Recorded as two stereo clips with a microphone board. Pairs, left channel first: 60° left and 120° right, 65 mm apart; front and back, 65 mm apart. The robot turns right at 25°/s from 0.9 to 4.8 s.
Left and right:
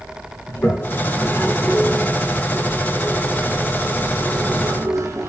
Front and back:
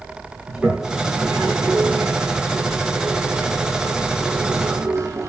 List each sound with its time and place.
0.5 s a toilet flushing: 110° left, 1.0 m; by 5.3 s 150° right, 1.0 m